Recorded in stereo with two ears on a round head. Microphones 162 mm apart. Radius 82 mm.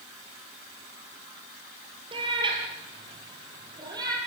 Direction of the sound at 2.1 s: 30° right (ahead or behind).